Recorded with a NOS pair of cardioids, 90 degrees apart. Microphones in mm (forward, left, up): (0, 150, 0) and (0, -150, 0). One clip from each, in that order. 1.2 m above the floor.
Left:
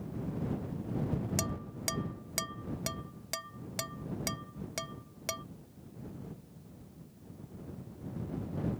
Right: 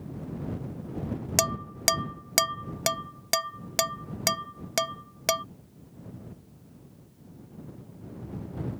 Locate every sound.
1.4 s dishes clattering: 60° right